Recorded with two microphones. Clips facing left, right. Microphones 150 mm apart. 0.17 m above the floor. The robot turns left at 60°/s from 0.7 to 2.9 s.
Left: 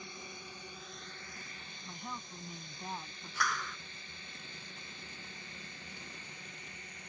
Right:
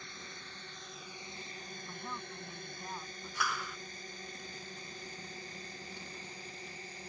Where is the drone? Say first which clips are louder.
Left 2 dB; 15° left (ahead or behind); by 7.1 s 35° right (ahead or behind).